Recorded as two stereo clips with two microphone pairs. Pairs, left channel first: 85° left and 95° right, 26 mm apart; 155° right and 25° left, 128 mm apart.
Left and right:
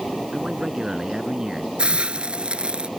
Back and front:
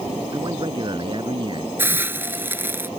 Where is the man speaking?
25° right.